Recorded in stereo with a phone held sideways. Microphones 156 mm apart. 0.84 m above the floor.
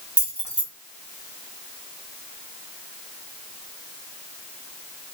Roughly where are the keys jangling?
Right.